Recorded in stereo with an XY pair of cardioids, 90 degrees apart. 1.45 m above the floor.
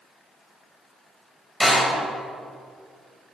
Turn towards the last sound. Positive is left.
turn(degrees=15)